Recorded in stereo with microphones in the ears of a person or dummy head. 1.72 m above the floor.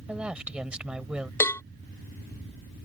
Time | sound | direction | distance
0.1 | a woman speaking | 10° right (ahead or behind) | ?
1.4 | a cowbell | 15° left (ahead or behind) | ?